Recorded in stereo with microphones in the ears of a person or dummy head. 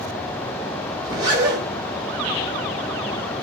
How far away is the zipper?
About 1.0 m.